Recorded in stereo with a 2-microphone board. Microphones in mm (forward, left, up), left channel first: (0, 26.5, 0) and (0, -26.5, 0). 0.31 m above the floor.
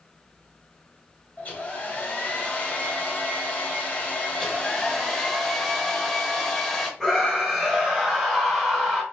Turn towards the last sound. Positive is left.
turn(degrees=5)  # may be behind; listen again after turning